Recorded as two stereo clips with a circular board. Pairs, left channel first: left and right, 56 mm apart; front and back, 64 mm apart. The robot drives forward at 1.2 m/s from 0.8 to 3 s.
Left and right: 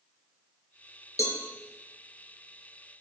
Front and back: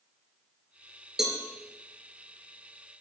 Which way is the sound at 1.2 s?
100° left.